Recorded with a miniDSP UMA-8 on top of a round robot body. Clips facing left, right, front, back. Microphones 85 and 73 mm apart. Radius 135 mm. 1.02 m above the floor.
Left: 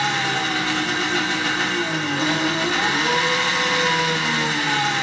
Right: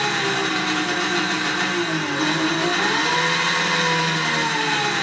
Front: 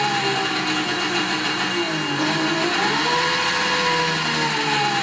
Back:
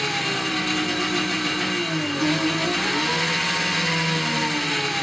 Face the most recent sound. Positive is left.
turn(degrees=0)